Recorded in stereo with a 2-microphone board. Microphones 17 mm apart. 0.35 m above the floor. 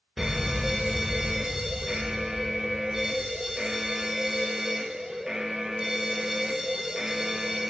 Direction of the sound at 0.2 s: 35° right (ahead or behind).